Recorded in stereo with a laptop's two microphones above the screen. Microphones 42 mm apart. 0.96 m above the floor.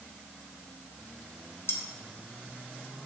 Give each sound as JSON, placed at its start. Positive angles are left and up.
{"t": 1.7, "sound": "cutlery clinking", "side_deg": 75, "distance_m": 0.7}